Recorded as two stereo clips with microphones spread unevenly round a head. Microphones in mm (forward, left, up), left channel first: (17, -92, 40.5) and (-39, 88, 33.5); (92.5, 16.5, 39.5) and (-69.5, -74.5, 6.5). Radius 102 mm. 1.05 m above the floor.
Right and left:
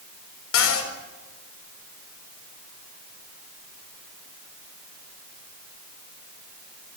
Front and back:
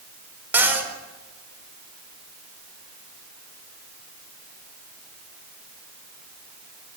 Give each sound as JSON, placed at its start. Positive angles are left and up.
{"t": 0.5, "sound": "a cupboard door", "azimuth_deg": -70, "distance_m": 4.5}